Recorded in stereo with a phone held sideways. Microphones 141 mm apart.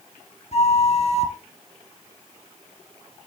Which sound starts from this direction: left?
A flute, at 0.5 s.